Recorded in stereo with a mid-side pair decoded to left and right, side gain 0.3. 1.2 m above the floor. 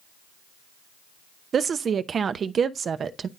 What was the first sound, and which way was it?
A woman speaking, 70° right.